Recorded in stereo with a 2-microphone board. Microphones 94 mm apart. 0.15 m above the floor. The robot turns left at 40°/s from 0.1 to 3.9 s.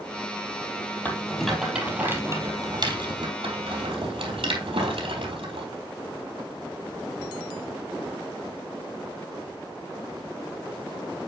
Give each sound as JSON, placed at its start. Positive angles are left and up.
{"t": 1.1, "sound": "a rattle", "side_deg": 15, "distance_m": 4.0}